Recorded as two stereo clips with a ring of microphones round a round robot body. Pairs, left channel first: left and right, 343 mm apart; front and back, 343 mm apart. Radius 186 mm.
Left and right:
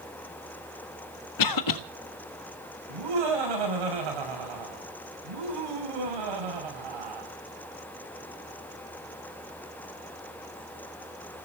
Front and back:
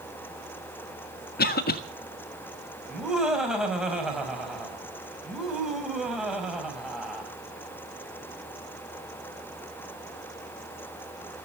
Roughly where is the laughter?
Right.